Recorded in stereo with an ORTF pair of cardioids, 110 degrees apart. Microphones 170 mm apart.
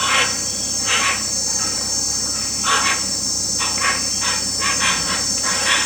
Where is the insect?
Straight ahead.